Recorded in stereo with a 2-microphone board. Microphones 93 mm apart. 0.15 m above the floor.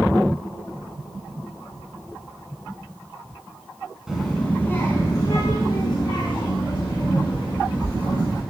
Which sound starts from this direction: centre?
A child speaking, at 4.1 s.